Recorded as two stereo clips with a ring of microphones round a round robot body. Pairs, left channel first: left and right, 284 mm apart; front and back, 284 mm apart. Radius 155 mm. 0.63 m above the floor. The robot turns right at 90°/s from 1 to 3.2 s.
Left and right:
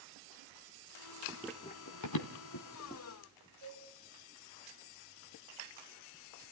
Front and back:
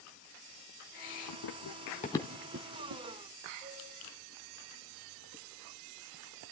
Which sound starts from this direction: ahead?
Running footsteps, at 1.3 s.